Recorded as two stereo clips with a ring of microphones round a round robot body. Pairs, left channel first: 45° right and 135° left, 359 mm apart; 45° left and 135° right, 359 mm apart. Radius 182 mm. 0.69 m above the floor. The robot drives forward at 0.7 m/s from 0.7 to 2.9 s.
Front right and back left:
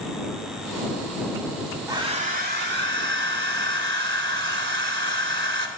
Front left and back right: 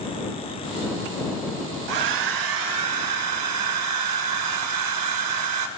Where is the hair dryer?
145° right, 0.7 m; by 5.7 s 165° right, 1.2 m.